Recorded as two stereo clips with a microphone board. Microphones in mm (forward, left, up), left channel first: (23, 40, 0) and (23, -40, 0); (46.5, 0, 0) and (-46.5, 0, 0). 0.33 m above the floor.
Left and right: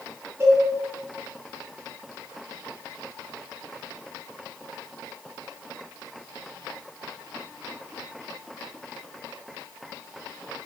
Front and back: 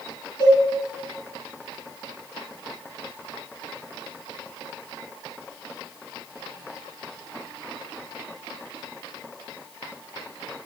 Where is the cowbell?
30° right, 3 m.